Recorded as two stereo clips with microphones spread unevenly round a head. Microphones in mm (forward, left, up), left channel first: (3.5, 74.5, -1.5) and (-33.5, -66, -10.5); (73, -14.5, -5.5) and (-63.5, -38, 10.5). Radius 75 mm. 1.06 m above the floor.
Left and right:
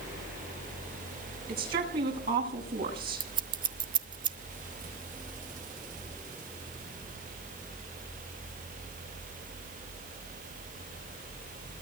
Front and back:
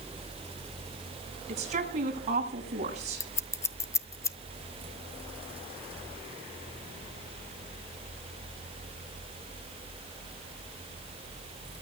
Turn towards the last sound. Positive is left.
turn(degrees=-60)